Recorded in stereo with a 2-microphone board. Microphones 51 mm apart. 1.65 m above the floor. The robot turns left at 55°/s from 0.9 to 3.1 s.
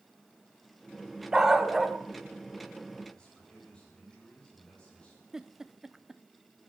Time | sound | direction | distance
1.3 | a dog barking | 10° right (ahead or behind) | 1.3 m
3.1 | a man speaking | 20° left (ahead or behind) | 9.5 m
5.3 | a giggle | 10° right (ahead or behind) | 0.7 m